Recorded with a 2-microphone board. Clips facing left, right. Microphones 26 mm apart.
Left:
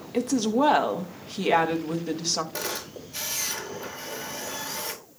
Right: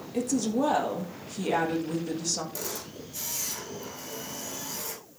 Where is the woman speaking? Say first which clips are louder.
Left 4 dB; 40° left (ahead or behind), 1.7 m.